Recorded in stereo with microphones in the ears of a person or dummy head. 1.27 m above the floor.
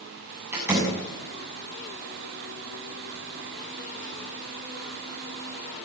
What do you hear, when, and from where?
0.5 s a door slam: 10° right (ahead or behind), 7 m